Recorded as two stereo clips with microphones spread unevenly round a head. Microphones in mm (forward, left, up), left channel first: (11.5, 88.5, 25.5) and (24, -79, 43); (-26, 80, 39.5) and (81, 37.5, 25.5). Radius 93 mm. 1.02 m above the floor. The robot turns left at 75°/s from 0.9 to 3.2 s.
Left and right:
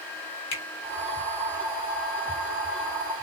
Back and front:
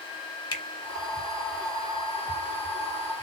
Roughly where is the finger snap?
Left.